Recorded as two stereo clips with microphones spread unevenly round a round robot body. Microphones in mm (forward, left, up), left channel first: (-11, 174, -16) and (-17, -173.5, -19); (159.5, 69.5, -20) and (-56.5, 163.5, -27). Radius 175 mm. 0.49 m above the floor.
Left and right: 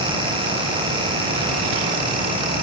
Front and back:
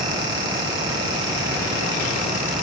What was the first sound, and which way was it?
Only background noise.